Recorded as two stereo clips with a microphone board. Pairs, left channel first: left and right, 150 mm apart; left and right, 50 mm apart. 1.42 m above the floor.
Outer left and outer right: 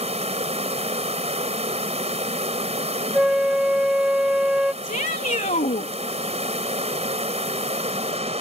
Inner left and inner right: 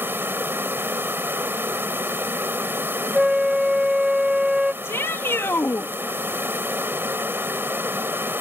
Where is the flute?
10° right (ahead or behind).